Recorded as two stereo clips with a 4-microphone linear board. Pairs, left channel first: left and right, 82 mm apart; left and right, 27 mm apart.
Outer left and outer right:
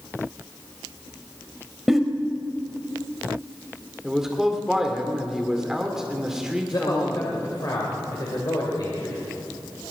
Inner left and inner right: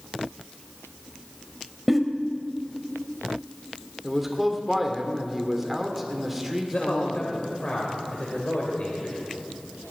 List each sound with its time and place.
1.9 s a giggle: 5° right (ahead or behind), 1.3 m
4.0 s a man speaking: 5° right (ahead or behind), 2 m
6.7 s a man speaking: 50° left (ahead or behind), 2.5 m